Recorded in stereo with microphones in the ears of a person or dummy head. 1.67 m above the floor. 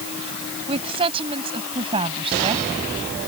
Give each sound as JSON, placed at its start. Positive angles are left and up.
{"t": 0.7, "sound": "a woman speaking", "side_deg": -30}